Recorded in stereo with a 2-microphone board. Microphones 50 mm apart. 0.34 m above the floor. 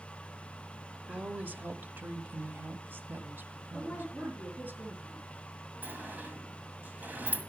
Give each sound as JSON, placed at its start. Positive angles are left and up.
{"t": 1.1, "sound": "a woman speaking", "side_deg": -25, "distance_m": 1.0}
{"t": 3.7, "sound": "a woman speaking", "side_deg": -10, "distance_m": 5.0}
{"t": 5.8, "sound": "a sliding door", "side_deg": -35, "distance_m": 1.7}